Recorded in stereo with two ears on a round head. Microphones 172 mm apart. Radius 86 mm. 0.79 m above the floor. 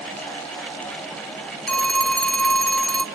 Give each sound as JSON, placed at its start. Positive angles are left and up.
{"t": 1.7, "sound": "a phone ringing", "side_deg": 5, "distance_m": 1.0}